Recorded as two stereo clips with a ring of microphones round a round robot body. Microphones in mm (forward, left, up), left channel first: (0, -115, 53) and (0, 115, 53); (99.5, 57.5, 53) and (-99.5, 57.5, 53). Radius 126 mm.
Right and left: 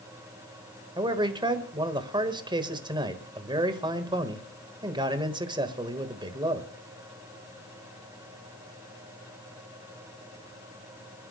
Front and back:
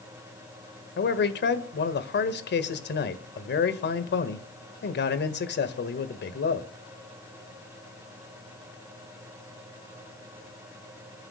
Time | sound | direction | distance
1.0 | a man speaking | 20° left | 1.5 m